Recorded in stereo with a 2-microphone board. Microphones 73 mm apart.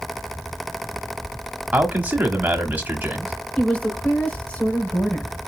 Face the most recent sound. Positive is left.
turn(degrees=15)  # may be behind; listen again after turning